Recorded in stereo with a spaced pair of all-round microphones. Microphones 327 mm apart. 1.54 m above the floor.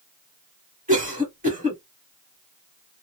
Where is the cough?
25° right (ahead or behind), 1.2 m.